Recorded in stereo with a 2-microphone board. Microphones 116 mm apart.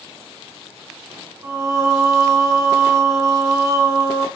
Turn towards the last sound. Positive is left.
turn(degrees=-30)  # may be behind; listen again after turning